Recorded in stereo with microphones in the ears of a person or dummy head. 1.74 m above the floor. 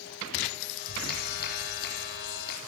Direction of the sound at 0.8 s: 55° left (ahead or behind).